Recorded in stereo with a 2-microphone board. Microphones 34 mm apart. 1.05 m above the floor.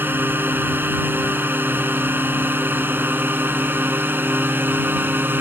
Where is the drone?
85° right.